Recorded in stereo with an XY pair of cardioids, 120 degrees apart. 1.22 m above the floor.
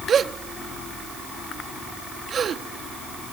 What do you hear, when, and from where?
0.1 s a gasp: 45° right